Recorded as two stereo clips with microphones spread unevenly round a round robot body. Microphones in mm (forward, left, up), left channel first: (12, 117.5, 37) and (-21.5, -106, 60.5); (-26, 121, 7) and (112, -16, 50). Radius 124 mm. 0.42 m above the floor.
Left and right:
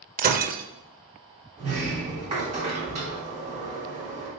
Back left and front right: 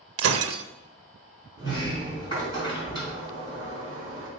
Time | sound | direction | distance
0.2 | breaking glass | 45° right | 0.6 m
1.6 | a sliding door | 155° right | 3.5 m